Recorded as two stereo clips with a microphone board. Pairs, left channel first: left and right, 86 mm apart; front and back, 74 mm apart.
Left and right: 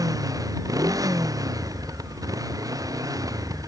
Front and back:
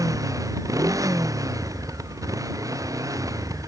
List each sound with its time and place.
0.0 s a motorcycle: 135° right